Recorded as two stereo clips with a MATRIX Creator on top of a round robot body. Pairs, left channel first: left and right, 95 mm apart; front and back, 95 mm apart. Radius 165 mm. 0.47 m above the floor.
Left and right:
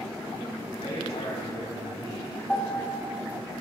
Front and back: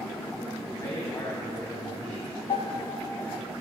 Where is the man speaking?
45° left, 4 m.